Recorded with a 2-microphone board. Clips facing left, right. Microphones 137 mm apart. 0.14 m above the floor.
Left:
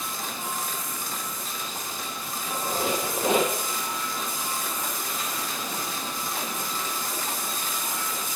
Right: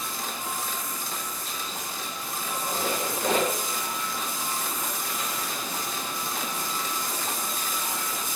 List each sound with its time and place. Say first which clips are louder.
2.4 s a squeak: left 2 dB; 15° left (ahead or behind), 9.5 m